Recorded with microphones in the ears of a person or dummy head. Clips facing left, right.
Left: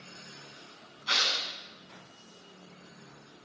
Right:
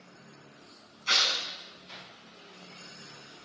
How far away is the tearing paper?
About 5.5 m.